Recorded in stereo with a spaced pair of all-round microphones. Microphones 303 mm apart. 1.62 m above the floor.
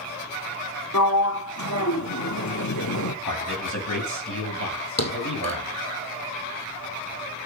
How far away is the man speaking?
About 8 m.